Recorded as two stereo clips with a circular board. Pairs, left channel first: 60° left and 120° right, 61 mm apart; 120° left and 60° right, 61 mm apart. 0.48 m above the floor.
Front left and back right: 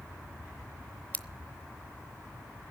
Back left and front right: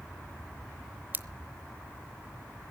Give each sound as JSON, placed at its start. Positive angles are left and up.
{"t": 1.1, "sound": "scissors", "azimuth_deg": 0, "distance_m": 0.9}